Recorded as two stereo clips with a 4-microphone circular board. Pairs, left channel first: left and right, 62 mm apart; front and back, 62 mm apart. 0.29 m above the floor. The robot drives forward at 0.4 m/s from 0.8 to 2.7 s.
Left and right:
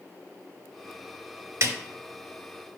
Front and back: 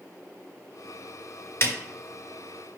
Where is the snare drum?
50° right, 0.6 m; by 1.8 s 55° right, 0.6 m.